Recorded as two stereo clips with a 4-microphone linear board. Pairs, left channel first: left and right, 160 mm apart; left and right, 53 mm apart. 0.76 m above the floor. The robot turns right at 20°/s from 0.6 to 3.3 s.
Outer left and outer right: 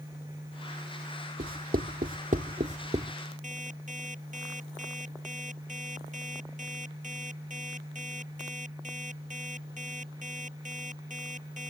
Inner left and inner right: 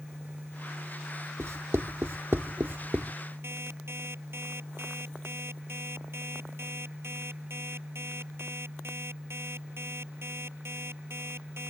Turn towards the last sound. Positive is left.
turn(degrees=-50)  # may be behind; listen again after turning